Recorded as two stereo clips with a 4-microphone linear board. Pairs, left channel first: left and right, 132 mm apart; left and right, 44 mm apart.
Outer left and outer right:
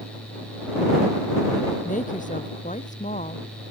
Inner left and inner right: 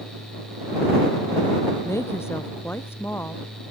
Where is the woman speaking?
80° left; by 3.7 s 60° left (ahead or behind).